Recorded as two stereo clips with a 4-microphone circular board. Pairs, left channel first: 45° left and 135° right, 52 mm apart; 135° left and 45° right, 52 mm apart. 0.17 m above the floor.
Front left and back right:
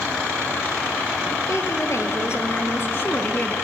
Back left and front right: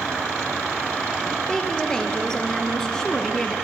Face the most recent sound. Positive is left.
turn(degrees=65)